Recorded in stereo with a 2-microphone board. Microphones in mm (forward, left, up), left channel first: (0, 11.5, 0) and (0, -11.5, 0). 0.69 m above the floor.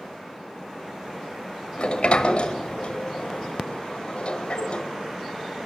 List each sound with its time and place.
1.8 s a sliding door: 45° left (ahead or behind), 1.3 m